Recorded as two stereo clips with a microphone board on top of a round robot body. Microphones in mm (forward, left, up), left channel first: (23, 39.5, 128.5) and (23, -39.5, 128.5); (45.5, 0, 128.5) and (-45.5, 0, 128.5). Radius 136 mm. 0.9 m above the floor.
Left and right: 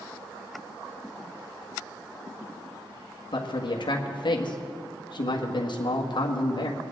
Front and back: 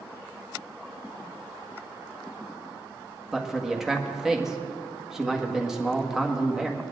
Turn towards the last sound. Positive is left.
turn(degrees=95)